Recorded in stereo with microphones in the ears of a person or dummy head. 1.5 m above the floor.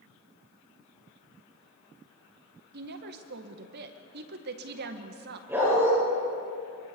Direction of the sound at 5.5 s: 10° right (ahead or behind).